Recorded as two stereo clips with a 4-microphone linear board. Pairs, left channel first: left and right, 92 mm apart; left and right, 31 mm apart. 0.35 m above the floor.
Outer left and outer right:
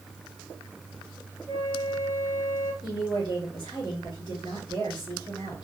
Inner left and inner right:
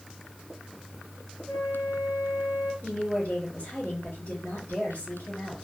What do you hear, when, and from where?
1.5 s a flute: 65° left (ahead or behind), 3 m
2.8 s a woman speaking: 65° left (ahead or behind), 3 m